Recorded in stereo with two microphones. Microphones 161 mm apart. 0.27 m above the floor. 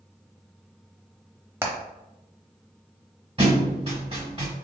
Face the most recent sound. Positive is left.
turn(degrees=-35)  # may be behind; listen again after turning